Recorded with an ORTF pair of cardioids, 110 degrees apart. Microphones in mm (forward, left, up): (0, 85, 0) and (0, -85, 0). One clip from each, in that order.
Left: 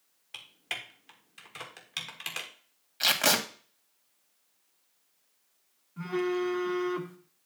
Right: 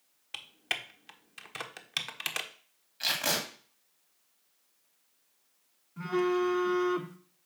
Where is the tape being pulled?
45° left, 2.0 m.